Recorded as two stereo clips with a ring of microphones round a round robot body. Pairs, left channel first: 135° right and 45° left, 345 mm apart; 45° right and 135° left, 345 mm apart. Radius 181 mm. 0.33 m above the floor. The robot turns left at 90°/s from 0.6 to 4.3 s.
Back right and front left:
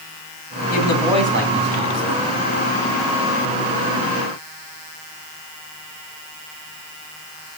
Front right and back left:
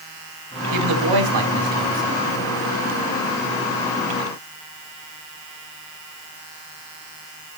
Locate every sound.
0.7 s a woman speaking: 165° left, 3.5 m; by 2.2 s 25° left, 3.5 m